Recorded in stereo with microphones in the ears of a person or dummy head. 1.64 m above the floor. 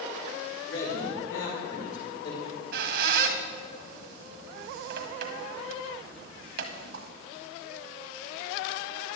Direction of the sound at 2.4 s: 55° right (ahead or behind).